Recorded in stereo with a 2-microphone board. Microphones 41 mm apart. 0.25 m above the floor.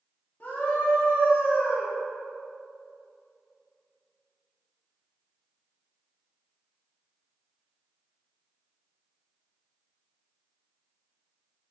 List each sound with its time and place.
0.4 s a scream: 45° left (ahead or behind), 2 m; by 1.9 s 60° left (ahead or behind), 3.5 m